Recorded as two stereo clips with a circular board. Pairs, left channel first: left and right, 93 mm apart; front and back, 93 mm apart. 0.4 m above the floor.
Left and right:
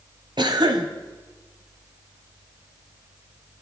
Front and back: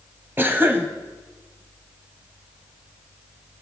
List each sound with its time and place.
0.4 s a cough: 115° right, 2 m